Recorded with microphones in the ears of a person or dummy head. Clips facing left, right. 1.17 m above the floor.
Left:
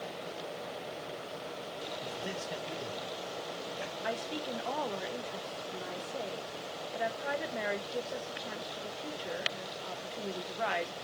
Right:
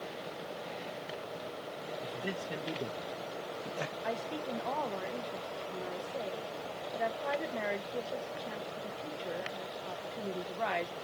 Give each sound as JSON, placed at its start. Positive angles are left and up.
{"t": 2.0, "sound": "a man speaking", "side_deg": -30, "distance_m": 1.6}
{"t": 4.0, "sound": "a woman speaking", "side_deg": -5, "distance_m": 1.1}